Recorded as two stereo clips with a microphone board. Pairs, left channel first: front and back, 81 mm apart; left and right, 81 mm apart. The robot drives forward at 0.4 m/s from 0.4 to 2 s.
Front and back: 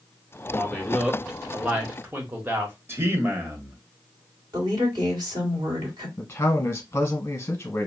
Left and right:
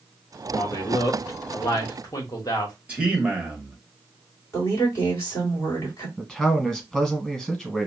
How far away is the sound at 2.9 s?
About 0.8 m.